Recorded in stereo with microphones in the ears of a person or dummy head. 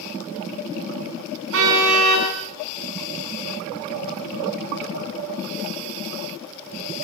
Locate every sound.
1.5 s a car horn: 65° right (ahead or behind), 8.5 m